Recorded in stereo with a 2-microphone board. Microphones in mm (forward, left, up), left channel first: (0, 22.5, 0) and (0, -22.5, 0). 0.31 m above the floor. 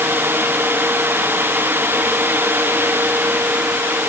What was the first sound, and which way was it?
Only background noise.